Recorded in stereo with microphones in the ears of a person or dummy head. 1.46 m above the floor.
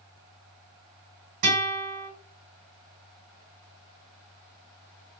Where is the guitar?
45° right (ahead or behind), 1.8 m.